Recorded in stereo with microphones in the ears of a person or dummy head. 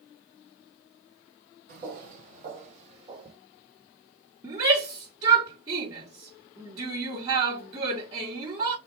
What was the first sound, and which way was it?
Footsteps, 50° right (ahead or behind).